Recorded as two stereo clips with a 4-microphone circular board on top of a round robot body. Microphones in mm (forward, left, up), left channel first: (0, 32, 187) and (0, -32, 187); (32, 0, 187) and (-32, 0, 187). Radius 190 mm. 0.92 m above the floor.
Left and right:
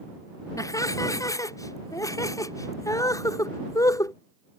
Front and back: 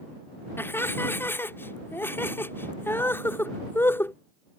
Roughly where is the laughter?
Ahead left.